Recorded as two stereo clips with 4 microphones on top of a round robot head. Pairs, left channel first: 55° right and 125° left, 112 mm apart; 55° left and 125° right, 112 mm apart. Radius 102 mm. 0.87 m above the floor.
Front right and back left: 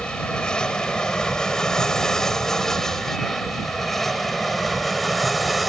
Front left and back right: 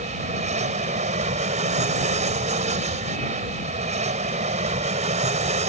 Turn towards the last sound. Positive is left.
turn(degrees=-145)